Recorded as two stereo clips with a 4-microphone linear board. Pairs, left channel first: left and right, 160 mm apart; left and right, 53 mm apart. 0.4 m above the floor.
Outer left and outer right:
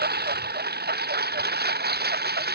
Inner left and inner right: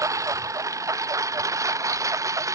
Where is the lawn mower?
90° right.